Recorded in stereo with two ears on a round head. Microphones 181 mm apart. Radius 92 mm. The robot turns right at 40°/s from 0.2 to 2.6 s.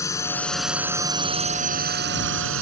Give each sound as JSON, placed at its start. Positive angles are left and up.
{"t": 0.0, "sound": "a drone", "azimuth_deg": 165}